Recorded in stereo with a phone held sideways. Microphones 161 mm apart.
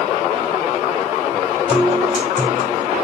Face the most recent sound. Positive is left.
turn(degrees=-55)  # may be behind; listen again after turning